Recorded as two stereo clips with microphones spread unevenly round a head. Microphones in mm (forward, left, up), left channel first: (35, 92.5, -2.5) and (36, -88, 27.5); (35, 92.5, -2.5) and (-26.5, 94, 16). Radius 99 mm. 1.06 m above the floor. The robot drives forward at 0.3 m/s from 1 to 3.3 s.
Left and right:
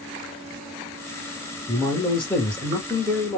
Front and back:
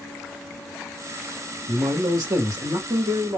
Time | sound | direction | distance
1.7 | a man speaking | 160° left | 0.9 m